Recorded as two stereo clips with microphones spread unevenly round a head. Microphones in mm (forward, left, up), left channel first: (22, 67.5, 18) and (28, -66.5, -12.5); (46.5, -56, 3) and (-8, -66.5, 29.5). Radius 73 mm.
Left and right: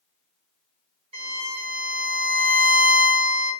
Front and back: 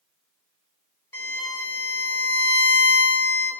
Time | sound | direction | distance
1.1 | a violin | 45° right | 1.2 m